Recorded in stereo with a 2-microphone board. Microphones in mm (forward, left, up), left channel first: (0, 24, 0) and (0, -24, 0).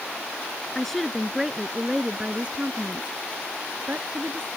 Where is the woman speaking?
10° left (ahead or behind); by 4.5 s 55° right (ahead or behind).